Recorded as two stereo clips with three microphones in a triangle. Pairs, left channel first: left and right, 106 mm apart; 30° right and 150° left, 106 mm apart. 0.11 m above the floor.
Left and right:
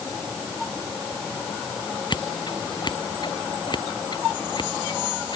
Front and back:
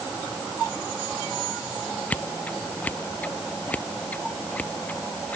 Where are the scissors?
45° left.